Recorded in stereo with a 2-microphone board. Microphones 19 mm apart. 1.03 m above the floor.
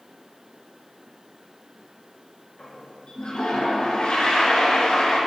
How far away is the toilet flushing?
About 3 m.